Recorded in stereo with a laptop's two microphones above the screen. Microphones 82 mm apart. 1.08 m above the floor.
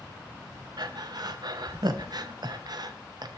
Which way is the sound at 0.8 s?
55° right (ahead or behind).